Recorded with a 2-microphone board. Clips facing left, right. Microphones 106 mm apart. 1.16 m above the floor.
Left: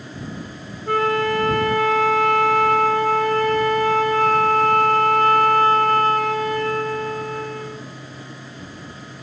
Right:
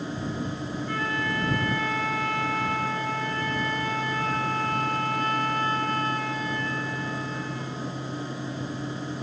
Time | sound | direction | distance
0.9 | a flute | 85° left | ?